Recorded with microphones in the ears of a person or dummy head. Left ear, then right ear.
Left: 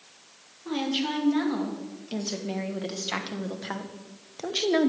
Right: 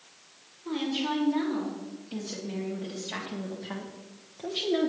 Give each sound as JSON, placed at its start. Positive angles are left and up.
{"t": 0.7, "sound": "a woman speaking", "side_deg": 45, "distance_m": 2.5}